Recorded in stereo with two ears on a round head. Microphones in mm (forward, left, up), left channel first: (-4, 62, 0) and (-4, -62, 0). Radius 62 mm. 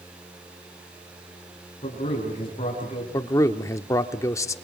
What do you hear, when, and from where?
1.8 s a man speaking: 40° left (ahead or behind), 5 m
3.1 s a man speaking: 25° left (ahead or behind), 0.7 m